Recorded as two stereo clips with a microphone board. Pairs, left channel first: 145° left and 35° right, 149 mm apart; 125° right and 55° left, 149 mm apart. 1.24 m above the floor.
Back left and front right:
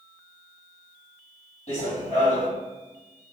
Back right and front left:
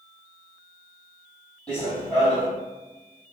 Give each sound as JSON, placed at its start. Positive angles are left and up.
{"t": 1.7, "sound": "running footsteps", "azimuth_deg": 155, "distance_m": 1.9}